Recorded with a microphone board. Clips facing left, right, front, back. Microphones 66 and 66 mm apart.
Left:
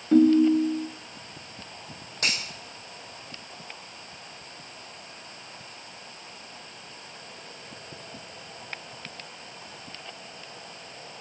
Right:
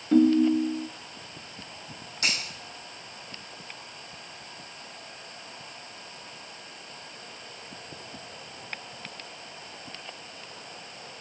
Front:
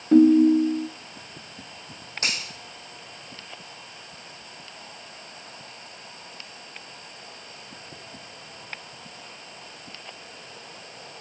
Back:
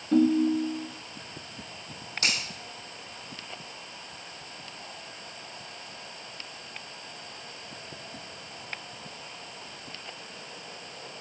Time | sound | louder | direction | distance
0.1 | a ringtone | left 2 dB, front 7 dB | 5° left | 0.6 m
2.2 | a finger snap | even, even | 55° left | 4.5 m